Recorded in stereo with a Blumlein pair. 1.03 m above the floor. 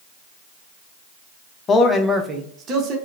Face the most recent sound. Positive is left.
turn(degrees=-35)